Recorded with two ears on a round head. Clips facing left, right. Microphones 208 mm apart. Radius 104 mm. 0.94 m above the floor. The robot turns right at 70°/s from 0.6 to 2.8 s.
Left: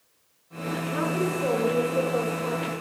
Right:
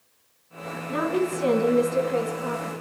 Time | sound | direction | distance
0.9 | a woman speaking | 120° right | 8.5 m